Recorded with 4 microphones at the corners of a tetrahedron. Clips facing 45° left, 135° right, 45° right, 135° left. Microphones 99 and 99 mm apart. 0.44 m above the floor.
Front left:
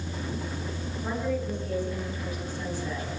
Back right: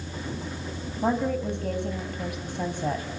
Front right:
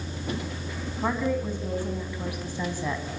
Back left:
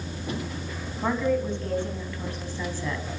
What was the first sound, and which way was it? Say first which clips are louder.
A woman speaking: back right 5 dB, back left 2 dB; 130° right.